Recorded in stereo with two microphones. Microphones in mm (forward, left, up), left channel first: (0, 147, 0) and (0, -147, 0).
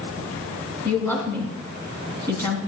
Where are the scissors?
I don't hear scissors.